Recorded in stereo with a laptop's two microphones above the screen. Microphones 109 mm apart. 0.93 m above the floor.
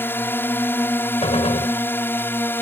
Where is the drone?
20° left (ahead or behind).